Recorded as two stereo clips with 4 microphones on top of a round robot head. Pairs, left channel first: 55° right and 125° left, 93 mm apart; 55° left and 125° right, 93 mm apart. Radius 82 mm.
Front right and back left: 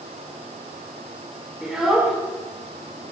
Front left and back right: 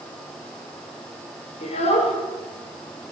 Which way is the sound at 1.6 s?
40° left.